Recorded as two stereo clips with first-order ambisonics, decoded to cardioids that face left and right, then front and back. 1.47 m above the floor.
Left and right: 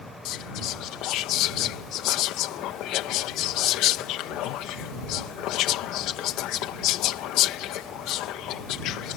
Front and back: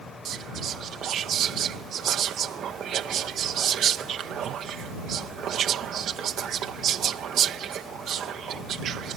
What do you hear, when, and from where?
0.2 s whispering: 125° left